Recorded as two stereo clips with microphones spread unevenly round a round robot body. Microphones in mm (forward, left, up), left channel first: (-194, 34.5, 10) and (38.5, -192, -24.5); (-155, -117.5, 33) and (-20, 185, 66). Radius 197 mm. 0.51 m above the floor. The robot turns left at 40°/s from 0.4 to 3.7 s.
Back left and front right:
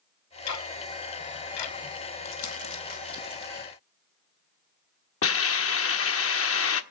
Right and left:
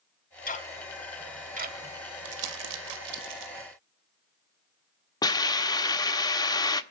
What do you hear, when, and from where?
0.5 s ticking: straight behind, 1.7 m; by 1.8 s 130° left, 1.7 m
2.2 s crumpling: 90° left, 1.9 m; by 3.5 s 40° left, 1.9 m
5.2 s a hiss: 175° left, 1.4 m